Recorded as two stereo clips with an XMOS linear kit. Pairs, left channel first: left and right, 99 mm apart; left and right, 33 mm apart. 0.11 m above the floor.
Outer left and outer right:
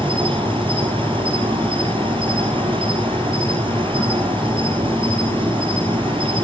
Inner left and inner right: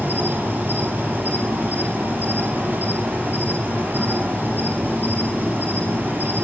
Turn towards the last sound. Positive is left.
turn(degrees=-60)  # may be behind; listen again after turning